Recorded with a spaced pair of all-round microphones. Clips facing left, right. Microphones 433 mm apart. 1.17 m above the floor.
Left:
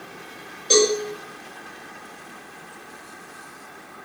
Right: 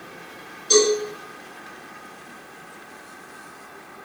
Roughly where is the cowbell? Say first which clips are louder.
Right 1 dB; left.